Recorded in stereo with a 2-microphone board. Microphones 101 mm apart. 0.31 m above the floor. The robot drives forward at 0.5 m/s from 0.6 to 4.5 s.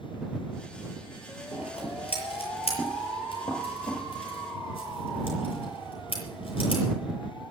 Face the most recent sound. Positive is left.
turn(degrees=65)  # may be behind; listen again after turning